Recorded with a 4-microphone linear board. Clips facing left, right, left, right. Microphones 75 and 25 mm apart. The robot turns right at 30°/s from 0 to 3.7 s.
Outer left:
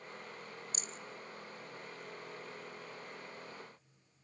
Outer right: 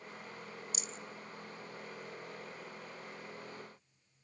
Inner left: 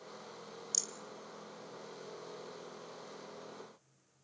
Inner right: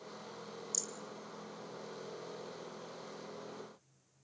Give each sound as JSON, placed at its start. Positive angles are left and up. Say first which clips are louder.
{"t": 0.7, "sound": "a rattle", "louder": "outer right 1 dB, inner left 4 dB", "side_deg": 40, "distance_m": 0.7}